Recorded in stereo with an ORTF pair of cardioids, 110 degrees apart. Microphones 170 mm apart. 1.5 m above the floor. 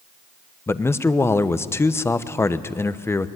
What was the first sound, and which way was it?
A man speaking, 15° left.